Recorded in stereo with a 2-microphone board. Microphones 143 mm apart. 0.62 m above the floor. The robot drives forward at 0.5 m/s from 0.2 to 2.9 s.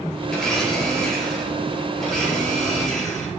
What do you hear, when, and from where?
0.3 s a blender: 5° left (ahead or behind), 4 m